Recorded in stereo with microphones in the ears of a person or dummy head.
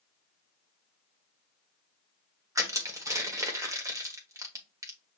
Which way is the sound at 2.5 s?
20° right (ahead or behind).